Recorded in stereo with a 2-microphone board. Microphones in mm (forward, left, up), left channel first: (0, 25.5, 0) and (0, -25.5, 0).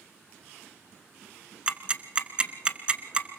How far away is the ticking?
About 1.1 m.